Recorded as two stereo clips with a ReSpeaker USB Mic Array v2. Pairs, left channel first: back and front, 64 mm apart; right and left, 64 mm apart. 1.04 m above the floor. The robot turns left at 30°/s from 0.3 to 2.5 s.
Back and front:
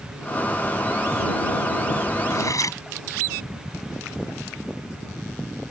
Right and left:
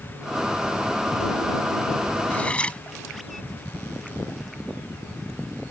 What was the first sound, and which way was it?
Cutlery clinking, 155° right.